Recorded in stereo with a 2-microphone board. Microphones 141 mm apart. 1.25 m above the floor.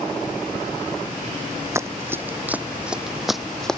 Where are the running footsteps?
20° right (ahead or behind); by 3.8 s 5° left (ahead or behind).